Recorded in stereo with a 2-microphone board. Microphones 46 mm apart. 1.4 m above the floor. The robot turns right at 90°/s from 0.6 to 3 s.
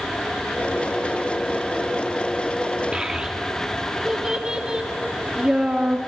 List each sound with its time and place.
2.9 s a child speaking: 25° right (ahead or behind), 1.8 m; by 6.0 s 15° right (ahead or behind), 1.8 m